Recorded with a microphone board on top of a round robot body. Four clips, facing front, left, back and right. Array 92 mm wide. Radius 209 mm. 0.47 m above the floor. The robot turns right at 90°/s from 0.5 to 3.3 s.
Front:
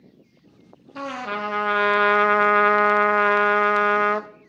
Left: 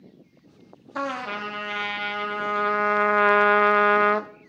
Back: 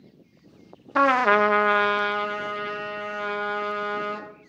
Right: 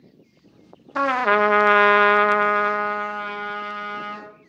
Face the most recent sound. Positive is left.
turn(degrees=50)